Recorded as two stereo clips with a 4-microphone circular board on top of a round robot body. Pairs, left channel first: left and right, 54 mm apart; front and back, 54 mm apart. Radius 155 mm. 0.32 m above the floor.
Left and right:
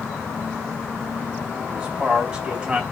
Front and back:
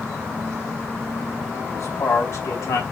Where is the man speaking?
25° right, 3 m.